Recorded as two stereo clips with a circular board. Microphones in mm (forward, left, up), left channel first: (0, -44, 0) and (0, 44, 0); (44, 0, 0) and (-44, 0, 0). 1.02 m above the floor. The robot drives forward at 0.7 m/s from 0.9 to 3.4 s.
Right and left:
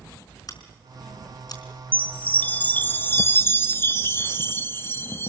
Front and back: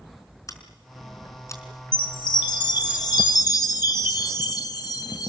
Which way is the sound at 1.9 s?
20° right.